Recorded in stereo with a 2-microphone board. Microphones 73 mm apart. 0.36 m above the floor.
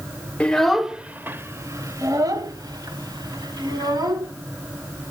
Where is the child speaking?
15° left (ahead or behind), 0.7 m; by 4.3 s 75° right (ahead or behind), 2.5 m.